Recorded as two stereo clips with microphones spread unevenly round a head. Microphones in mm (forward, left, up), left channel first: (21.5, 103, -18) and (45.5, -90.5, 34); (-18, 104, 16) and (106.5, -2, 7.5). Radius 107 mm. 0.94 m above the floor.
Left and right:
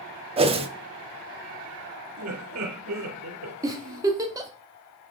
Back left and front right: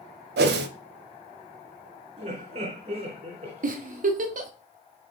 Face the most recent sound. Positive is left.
turn(degrees=-5)